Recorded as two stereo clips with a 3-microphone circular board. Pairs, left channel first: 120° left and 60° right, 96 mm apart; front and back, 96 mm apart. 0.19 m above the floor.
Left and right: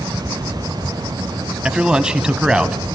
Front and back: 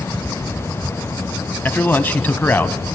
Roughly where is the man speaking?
Ahead.